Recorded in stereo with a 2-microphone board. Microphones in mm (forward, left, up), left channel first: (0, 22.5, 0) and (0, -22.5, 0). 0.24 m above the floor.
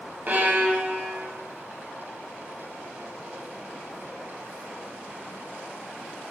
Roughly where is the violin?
Right.